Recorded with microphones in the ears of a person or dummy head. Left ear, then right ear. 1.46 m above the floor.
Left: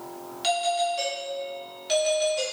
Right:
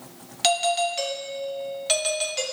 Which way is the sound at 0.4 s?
40° right (ahead or behind).